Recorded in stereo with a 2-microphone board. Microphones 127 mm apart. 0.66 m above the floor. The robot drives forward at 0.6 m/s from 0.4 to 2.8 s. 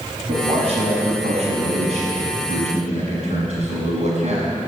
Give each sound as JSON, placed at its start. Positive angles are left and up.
{"t": 0.3, "sound": "a man speaking", "side_deg": -50, "distance_m": 5.5}